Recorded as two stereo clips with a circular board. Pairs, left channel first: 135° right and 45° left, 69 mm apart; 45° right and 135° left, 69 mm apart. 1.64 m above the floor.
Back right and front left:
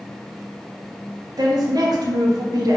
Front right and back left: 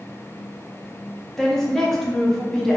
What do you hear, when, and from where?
1.4 s a woman speaking: 40° left, 0.6 m